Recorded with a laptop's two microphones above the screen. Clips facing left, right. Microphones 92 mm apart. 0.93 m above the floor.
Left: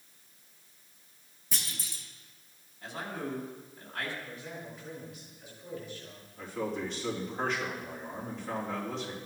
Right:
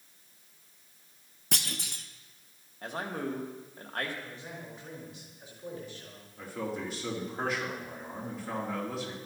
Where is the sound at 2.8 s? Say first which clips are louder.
Right 3 dB; 50° right (ahead or behind), 1.4 m.